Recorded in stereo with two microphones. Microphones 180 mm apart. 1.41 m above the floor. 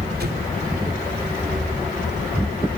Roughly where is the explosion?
Right.